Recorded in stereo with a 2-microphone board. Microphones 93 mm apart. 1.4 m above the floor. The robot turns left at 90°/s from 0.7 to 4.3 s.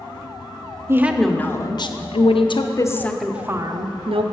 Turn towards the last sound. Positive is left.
turn(degrees=-100)